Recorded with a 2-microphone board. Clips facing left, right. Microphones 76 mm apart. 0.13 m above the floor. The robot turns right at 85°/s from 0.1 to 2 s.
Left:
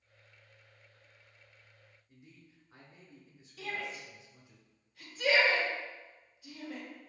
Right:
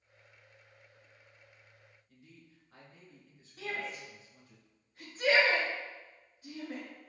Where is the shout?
40° right (ahead or behind), 1.7 m.